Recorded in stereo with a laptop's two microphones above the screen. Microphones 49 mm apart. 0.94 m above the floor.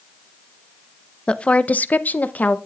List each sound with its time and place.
1.3 s a woman speaking: 20° left (ahead or behind), 0.7 m; by 2.6 s 30° left (ahead or behind), 0.9 m